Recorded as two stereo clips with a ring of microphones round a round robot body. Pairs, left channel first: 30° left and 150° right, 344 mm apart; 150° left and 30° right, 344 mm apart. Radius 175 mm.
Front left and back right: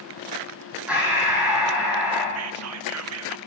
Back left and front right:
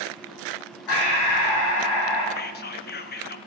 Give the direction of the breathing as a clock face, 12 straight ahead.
8 o'clock.